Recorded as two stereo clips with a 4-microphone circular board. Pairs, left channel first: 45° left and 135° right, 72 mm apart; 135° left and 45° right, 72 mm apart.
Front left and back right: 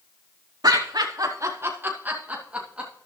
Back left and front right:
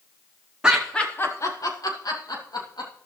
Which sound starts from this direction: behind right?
Laughter, at 0.6 s.